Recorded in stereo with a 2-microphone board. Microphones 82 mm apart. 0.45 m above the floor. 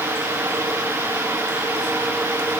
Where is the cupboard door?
No cupboard door in this recording.